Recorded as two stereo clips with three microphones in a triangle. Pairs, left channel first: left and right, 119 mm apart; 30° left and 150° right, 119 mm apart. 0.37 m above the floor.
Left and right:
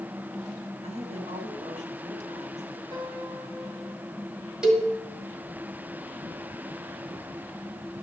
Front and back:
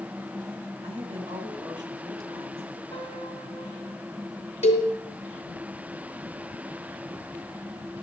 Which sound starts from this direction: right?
A woman speaking, at 0.8 s.